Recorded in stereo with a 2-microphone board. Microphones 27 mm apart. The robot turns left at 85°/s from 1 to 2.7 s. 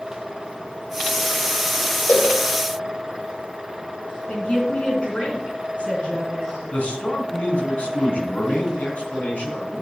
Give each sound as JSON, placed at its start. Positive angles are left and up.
{"t": 2.1, "sound": "a cowbell", "side_deg": 65, "distance_m": 4.5}
{"t": 4.3, "sound": "a woman speaking", "side_deg": 55, "distance_m": 3.5}
{"t": 6.7, "sound": "a man speaking", "side_deg": 60, "distance_m": 3.0}